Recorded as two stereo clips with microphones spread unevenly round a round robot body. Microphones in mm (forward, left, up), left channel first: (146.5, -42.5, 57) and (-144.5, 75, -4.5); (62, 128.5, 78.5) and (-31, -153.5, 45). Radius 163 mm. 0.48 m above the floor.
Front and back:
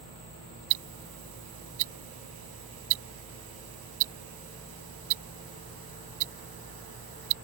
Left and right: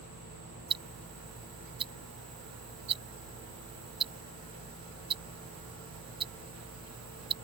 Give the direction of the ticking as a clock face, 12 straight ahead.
6 o'clock.